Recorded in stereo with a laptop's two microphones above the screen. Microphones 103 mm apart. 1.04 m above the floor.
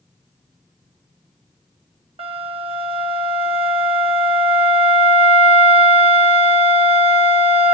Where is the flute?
65° right (ahead or behind), 1.2 m.